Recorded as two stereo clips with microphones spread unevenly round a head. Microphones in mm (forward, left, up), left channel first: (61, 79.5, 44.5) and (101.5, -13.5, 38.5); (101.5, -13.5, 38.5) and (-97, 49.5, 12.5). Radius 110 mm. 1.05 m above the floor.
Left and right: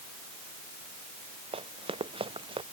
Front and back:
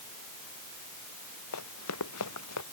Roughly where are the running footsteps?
Ahead right.